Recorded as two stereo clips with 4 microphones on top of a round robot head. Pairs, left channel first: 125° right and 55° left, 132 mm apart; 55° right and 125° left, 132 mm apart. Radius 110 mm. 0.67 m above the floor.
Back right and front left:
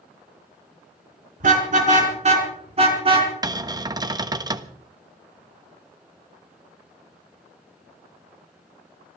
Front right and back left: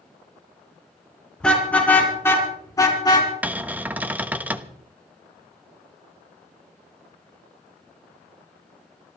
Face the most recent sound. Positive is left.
turn(degrees=60)